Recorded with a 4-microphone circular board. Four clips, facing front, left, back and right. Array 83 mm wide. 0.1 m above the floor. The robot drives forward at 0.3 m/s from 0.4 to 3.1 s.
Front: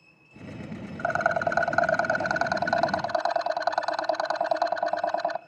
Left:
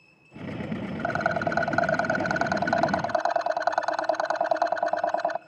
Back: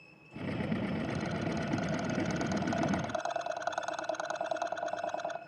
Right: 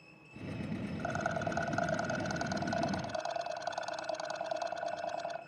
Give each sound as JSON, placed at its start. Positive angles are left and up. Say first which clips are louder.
{"t": 1.0, "sound": "a rattle", "louder": "left 10 dB, front 10 dB", "azimuth_deg": 35, "distance_m": 1.1}